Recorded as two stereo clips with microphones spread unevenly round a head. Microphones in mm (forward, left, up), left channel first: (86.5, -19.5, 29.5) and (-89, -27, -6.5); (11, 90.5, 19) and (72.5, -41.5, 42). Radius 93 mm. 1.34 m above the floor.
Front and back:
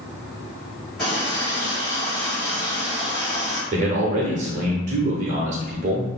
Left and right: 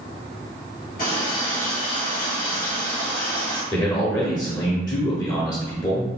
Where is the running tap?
90° left, 1.7 m.